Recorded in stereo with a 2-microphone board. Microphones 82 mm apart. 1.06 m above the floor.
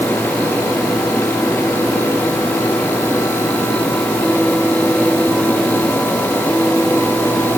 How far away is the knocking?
I don't hear knocking.